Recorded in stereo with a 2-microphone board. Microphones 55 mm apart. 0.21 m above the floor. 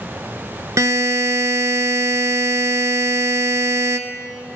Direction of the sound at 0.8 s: 70° right (ahead or behind).